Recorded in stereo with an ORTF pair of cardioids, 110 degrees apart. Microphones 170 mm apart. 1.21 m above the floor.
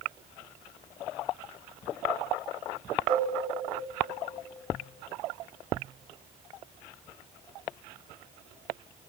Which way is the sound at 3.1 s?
50° right.